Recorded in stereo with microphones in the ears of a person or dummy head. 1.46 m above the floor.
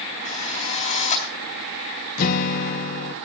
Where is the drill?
40° left (ahead or behind), 4 m.